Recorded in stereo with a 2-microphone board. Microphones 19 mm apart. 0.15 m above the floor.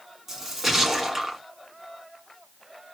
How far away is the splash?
About 1.3 m.